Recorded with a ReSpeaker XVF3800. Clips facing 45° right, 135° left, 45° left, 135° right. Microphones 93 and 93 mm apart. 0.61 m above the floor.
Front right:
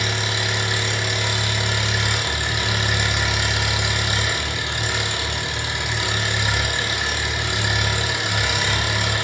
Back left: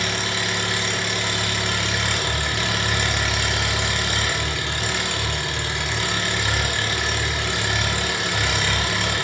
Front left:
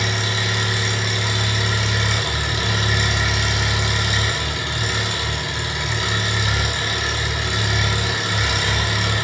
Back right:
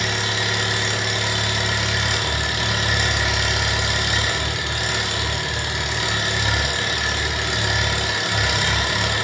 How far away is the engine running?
About 0.8 m.